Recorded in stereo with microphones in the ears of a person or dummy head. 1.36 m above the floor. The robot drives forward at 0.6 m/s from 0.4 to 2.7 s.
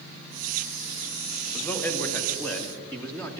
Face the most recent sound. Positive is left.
turn(degrees=10)  # may be behind; listen again after turning